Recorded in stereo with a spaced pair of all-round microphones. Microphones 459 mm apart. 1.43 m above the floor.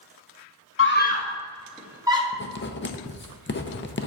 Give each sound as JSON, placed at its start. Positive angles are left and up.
{"t": 0.8, "sound": "a scream", "side_deg": 30, "distance_m": 0.9}
{"t": 2.3, "sound": "writing", "side_deg": 25, "distance_m": 0.5}